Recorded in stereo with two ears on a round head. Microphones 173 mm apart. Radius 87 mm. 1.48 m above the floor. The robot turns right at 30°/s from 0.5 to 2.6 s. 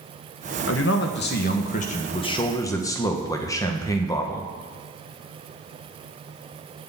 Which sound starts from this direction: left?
A man speaking, at 0.7 s.